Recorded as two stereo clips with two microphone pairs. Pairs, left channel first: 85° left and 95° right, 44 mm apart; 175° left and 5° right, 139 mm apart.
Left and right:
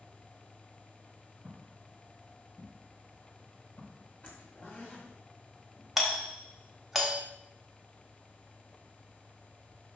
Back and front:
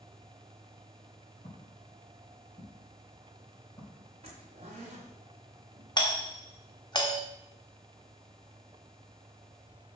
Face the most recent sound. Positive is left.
turn(degrees=180)